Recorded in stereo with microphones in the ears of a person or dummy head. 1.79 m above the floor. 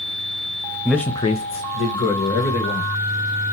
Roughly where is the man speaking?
Centre.